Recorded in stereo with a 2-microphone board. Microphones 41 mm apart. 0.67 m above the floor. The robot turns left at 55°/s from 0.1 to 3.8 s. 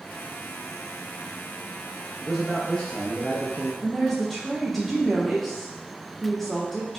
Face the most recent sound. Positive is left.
turn(degrees=5)  # may be behind; listen again after turning